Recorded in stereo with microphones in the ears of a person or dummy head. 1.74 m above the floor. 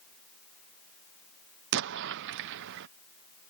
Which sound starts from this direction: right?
An explosion, at 1.7 s.